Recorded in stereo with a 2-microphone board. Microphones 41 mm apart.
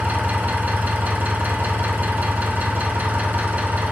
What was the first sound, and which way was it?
An engine running, 45° right (ahead or behind).